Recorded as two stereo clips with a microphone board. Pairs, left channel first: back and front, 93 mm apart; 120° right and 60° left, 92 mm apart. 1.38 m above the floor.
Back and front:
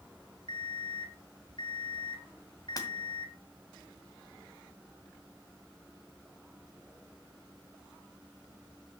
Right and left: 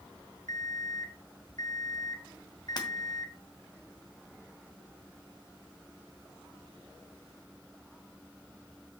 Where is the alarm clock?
160° right, 1.4 m.